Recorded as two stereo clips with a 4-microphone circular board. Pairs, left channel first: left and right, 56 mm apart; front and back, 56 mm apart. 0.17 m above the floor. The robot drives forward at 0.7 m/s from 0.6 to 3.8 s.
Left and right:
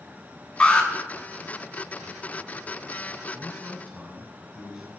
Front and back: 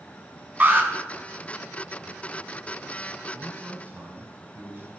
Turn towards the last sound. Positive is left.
turn(degrees=-165)